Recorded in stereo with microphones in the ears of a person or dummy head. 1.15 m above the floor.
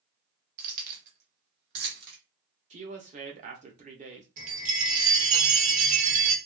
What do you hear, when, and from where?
0.6 s keys jangling: 45° right (ahead or behind), 0.9 m; by 2.2 s 65° right (ahead or behind), 1.7 m
2.7 s a woman speaking: 35° right (ahead or behind), 0.7 m
4.4 s a chime: 45° right (ahead or behind), 1.1 m